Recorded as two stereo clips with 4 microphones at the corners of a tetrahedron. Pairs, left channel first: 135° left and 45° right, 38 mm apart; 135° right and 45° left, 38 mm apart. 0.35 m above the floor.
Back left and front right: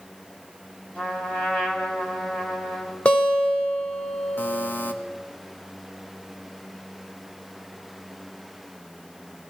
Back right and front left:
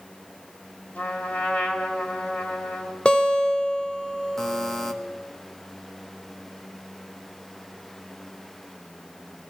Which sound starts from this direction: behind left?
A buzzer, at 4.4 s.